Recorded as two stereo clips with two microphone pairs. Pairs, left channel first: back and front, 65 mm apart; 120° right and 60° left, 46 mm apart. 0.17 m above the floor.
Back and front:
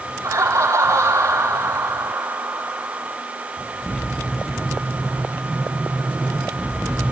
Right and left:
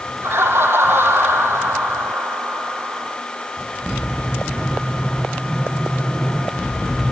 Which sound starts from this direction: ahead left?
Laughter, at 0.2 s.